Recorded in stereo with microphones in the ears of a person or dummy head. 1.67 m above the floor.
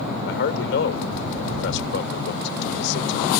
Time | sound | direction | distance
0.3 | a man speaking | 65° left (ahead or behind) | ?